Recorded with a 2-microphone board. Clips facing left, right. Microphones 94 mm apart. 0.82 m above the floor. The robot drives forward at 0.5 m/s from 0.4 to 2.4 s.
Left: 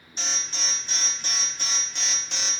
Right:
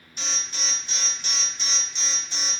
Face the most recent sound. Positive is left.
turn(degrees=65)  # may be behind; listen again after turning